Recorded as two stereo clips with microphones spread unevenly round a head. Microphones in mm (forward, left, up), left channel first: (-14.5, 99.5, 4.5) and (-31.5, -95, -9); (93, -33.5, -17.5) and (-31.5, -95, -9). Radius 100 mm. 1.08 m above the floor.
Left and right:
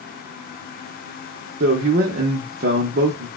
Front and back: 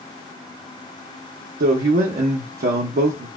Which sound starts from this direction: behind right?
A man speaking, at 1.6 s.